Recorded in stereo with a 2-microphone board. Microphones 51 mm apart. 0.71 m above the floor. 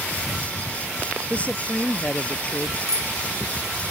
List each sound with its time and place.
1.3 s a woman speaking: 30° left (ahead or behind)
2.9 s a bicycle bell: 70° right (ahead or behind)